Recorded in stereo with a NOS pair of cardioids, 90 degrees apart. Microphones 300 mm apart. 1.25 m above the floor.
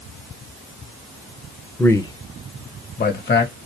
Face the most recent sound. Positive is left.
turn(degrees=35)